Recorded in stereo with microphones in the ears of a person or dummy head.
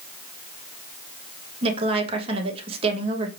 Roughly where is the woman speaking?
Right.